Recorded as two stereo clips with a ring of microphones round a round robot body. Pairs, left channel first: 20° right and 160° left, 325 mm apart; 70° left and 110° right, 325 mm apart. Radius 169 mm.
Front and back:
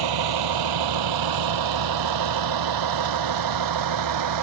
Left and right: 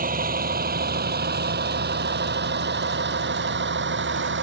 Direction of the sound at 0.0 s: Straight behind.